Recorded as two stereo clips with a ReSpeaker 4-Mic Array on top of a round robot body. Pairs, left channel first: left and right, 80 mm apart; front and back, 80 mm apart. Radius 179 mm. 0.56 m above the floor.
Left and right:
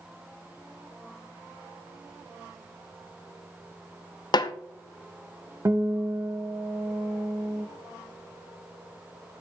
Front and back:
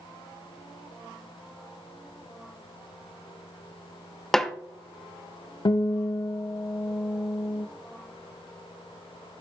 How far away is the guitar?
About 0.8 m.